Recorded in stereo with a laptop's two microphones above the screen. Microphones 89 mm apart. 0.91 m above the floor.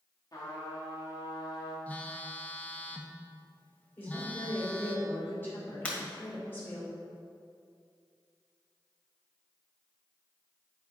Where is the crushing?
No crushing in this recording.